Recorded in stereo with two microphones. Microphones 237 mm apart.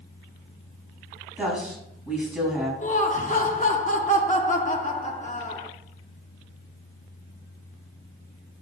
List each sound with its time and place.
1.4 s a woman speaking: 5° right (ahead or behind), 4.5 m
2.8 s laughter: 30° left (ahead or behind), 0.9 m